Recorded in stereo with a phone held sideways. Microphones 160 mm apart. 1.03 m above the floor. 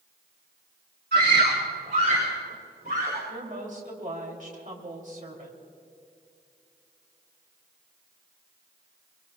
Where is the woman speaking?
55° right (ahead or behind), 3 m.